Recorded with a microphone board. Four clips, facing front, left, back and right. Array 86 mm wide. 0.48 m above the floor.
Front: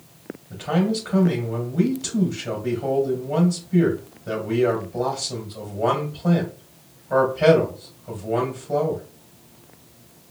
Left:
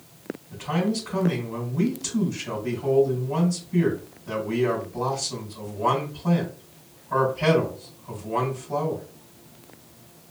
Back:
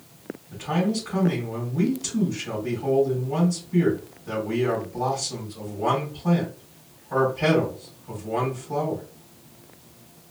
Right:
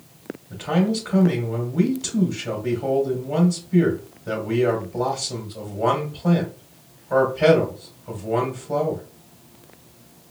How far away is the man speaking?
About 3 m.